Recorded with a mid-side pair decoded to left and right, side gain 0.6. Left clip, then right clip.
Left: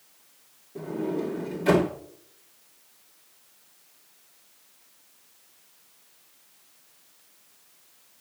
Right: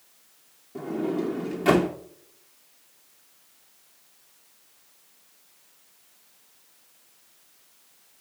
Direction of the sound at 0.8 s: 45° right.